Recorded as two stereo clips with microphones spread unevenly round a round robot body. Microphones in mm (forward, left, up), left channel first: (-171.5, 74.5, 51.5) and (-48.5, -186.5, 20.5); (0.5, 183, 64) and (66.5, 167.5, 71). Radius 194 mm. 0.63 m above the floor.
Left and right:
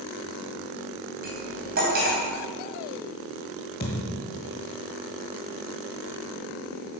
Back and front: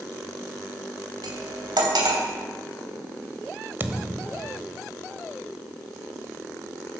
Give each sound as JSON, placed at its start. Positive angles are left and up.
{"t": 1.2, "sound": "cutlery clinking", "azimuth_deg": 0, "distance_m": 3.0}
{"t": 3.8, "sound": "a thud", "azimuth_deg": 50, "distance_m": 1.5}